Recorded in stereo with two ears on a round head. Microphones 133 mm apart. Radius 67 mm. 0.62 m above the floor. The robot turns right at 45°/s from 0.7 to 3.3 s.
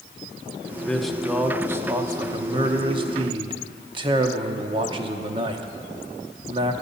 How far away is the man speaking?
About 0.9 m.